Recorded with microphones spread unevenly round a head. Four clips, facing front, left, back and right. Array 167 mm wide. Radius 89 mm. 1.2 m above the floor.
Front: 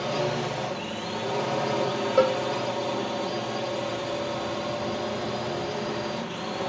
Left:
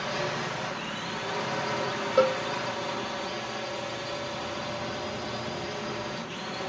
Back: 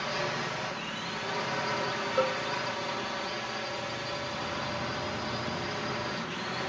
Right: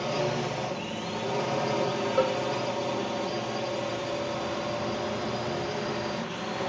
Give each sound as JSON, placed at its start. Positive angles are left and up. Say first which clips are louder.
{"t": 0.0, "sound": "a drone", "louder": "right 3 dB, front 6 dB", "azimuth_deg": -30}
{"t": 2.2, "sound": "a cowbell", "louder": "left 4 dB, front 8 dB", "azimuth_deg": 25}